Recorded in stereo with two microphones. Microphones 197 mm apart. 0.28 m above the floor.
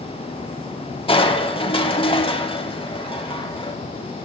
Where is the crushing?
25° left (ahead or behind), 0.7 m.